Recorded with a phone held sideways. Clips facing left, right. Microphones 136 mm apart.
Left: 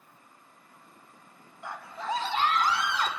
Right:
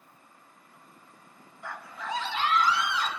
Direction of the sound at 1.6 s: 20° left (ahead or behind).